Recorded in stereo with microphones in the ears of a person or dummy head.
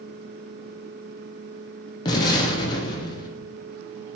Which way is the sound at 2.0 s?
25° left (ahead or behind).